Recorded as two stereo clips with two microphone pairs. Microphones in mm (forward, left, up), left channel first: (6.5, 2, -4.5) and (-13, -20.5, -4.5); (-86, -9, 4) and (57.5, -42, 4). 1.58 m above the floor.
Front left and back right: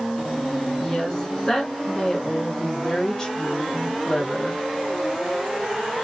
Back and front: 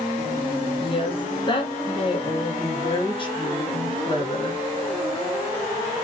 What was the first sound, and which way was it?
A woman speaking, 115° left.